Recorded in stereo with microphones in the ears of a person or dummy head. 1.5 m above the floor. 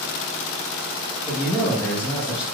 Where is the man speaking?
10° left (ahead or behind), 2.5 m; by 2.4 s 20° left (ahead or behind), 3 m.